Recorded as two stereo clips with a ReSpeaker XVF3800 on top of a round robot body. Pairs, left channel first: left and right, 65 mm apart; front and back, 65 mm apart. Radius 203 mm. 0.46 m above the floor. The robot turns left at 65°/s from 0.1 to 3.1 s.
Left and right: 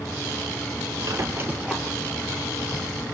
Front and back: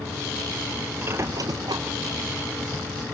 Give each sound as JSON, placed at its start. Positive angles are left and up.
{"t": 1.0, "sound": "a squeak", "azimuth_deg": -120, "distance_m": 2.0}